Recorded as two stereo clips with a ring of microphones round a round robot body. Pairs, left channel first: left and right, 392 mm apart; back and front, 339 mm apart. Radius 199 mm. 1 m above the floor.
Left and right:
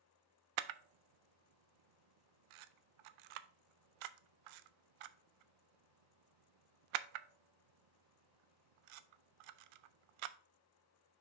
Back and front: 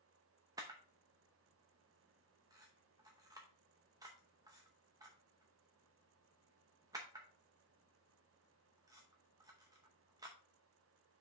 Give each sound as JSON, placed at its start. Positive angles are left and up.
{"t": 0.6, "sound": "a camera shutter", "azimuth_deg": -80, "distance_m": 0.5}